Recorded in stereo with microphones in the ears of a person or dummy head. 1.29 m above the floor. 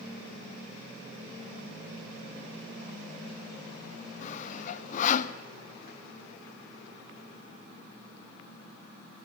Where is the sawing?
45° left (ahead or behind), 0.8 m.